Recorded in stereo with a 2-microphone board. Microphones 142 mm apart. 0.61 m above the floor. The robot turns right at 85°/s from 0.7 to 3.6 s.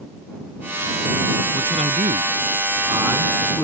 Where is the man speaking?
150° right; by 3.6 s 25° left.